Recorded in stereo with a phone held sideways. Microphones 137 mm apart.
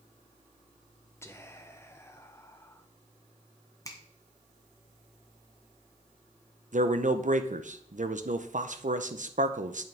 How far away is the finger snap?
About 1.3 m.